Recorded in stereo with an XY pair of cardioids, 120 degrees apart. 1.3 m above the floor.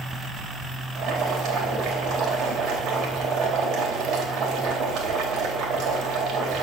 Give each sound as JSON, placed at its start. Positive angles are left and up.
{"t": 0.9, "sound": "boiling", "azimuth_deg": -70, "distance_m": 3.5}